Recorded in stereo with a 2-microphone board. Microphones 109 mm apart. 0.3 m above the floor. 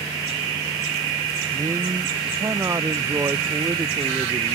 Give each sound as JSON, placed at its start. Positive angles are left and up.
{"t": 1.5, "sound": "a man speaking", "side_deg": -30}